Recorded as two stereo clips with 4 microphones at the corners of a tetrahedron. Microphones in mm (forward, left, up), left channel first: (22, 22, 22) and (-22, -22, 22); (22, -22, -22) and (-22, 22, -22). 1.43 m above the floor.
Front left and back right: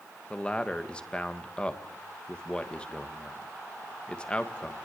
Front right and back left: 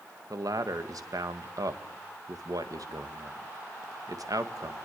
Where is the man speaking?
120° left, 1.8 m.